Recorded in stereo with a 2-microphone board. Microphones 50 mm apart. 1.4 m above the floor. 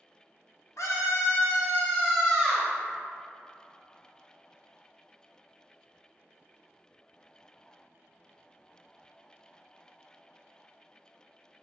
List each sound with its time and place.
0.8 s a scream: 75° left (ahead or behind), 0.8 m; by 2.7 s centre (ahead or behind), 1.0 m